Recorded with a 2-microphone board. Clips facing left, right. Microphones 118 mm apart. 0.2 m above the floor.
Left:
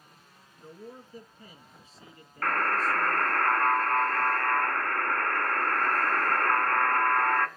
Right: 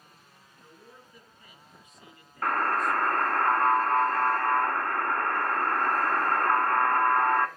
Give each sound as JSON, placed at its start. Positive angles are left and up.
{"t": 0.6, "sound": "a man speaking", "side_deg": 30, "distance_m": 2.5}
{"t": 2.4, "sound": "a buzzer", "side_deg": -20, "distance_m": 1.0}